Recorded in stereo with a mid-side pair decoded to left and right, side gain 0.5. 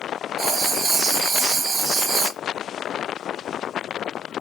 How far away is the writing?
About 1.1 m.